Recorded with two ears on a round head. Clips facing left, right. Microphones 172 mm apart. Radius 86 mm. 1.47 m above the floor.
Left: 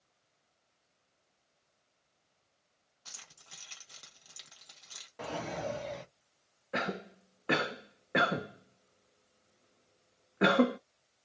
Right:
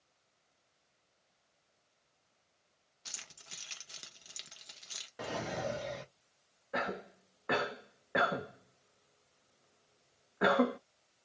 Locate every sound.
3.0 s keys jangling: 25° right (ahead or behind), 0.8 m
5.2 s a drawer: 10° right (ahead or behind), 0.7 m
6.7 s a cough: 35° left (ahead or behind), 0.6 m